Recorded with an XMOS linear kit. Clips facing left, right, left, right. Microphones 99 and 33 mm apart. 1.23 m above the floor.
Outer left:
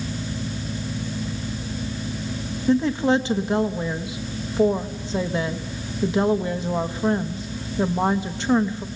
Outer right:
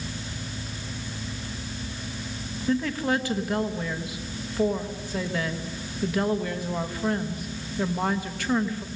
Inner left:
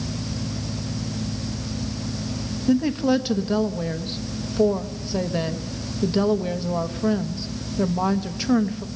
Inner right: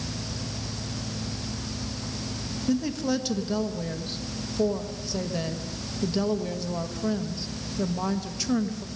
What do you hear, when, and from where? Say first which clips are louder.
2.7 s a woman speaking: outer left 6 dB, inner left 6 dB; 25° left (ahead or behind), 1.0 m